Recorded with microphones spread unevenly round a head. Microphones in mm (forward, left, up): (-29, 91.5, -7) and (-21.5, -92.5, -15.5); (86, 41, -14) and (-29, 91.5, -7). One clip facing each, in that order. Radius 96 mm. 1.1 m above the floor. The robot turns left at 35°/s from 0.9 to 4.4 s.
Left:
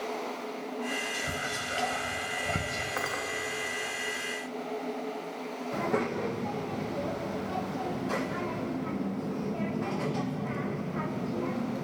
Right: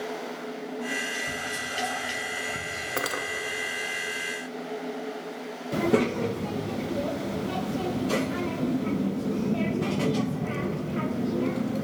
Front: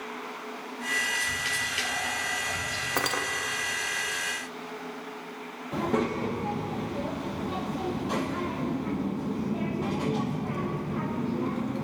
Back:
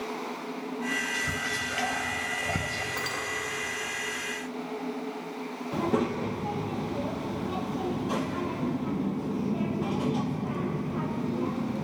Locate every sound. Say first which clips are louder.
1.1 s whispering: right 1 dB, back 2 dB; 175° left, 0.6 m; by 2.9 s 115° left, 0.6 m
3.0 s cutlery clinking: right 6 dB, front 9 dB; 50° right, 0.5 m; by 3.2 s 60° right, 0.5 m
5.7 s a child speaking: right 7 dB, even; 120° right, 0.5 m